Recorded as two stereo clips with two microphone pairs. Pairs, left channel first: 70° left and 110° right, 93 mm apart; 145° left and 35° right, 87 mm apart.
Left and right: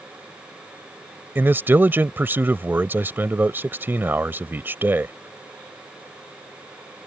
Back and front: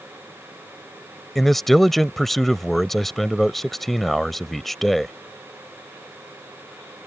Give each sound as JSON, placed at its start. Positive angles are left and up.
{"t": 1.4, "sound": "a man speaking", "azimuth_deg": -130}